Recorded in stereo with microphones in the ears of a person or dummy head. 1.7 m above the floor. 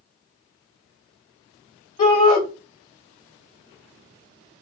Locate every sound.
2.0 s a shout: 30° left (ahead or behind), 1.6 m